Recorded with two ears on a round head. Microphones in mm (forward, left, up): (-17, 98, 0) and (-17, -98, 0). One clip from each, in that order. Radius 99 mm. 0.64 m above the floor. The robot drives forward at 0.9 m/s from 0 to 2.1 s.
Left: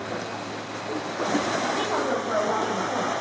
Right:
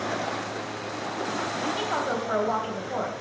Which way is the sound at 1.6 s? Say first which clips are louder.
Left 2 dB; 40° right (ahead or behind).